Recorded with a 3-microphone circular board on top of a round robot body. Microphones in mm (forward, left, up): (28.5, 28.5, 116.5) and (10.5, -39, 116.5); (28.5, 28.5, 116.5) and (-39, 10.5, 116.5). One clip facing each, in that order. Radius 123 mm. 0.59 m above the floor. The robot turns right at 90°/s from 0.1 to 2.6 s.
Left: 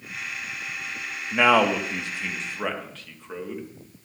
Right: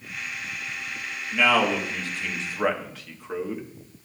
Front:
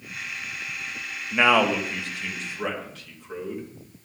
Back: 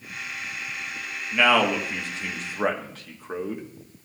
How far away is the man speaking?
About 1.7 m.